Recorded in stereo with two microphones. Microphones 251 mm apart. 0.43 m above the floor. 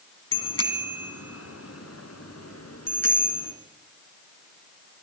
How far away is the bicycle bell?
About 2.5 m.